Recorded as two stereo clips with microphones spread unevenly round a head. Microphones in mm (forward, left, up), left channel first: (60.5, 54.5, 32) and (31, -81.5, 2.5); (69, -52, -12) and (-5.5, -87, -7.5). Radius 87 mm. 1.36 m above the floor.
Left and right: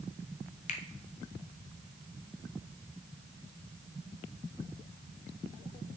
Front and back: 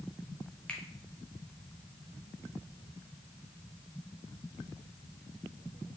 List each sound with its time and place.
0.7 s a finger snap: 105° left, 0.6 m